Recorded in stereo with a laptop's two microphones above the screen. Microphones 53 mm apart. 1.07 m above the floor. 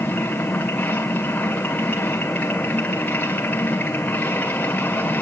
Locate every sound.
0.0 s a machine running: 30° left (ahead or behind), 1.8 m